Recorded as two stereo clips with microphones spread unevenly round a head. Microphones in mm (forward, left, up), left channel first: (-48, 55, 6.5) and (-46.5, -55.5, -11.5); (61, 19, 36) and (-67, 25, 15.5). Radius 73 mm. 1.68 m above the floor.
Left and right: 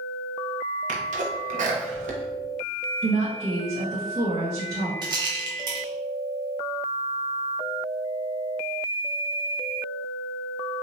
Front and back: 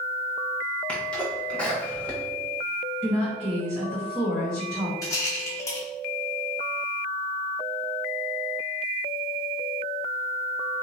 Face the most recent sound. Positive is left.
turn(degrees=-45)